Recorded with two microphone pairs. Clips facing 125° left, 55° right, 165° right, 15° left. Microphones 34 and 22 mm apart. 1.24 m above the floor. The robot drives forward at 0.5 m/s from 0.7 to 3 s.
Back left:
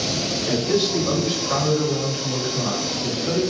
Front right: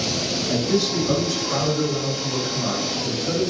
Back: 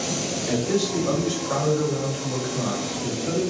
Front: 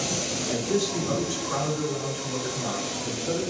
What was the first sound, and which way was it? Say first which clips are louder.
A man speaking: back left 1 dB, back 3 dB; 175° right.